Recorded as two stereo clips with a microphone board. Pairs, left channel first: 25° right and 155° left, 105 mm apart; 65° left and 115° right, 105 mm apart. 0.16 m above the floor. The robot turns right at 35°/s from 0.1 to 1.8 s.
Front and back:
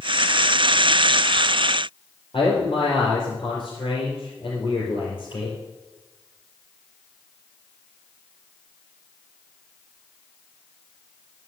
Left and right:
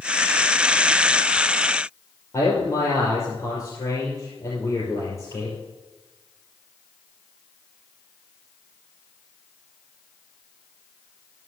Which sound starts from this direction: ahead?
A man speaking, at 2.3 s.